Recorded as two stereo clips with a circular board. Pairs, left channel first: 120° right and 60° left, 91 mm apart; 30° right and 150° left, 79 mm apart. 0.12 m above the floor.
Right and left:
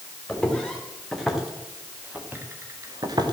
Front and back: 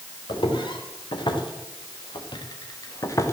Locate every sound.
0.3 s footsteps: 40° right, 4.5 m; by 3.4 s 25° left, 2 m